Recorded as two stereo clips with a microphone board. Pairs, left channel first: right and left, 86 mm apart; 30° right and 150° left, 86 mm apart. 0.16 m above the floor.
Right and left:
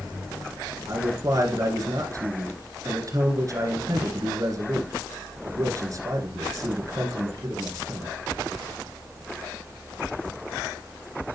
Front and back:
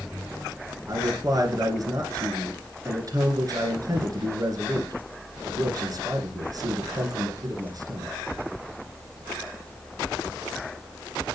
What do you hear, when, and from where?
0.9 s a man speaking: 125° left, 2.5 m